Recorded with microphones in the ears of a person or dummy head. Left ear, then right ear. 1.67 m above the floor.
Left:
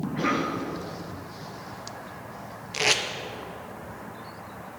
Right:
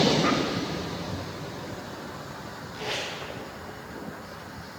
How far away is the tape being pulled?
About 1.3 m.